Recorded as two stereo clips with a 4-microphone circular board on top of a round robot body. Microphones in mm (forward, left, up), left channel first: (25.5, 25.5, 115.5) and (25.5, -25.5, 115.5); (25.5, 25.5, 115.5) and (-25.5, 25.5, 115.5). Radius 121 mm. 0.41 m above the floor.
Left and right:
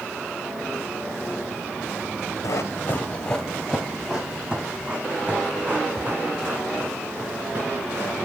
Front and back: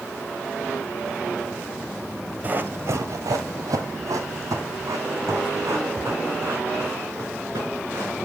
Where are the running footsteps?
120° left, 0.8 m; by 8.2 s 145° right, 5 m.